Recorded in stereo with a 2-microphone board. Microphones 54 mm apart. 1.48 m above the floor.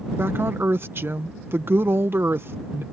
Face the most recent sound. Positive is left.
turn(degrees=-45)  # may be behind; listen again after turning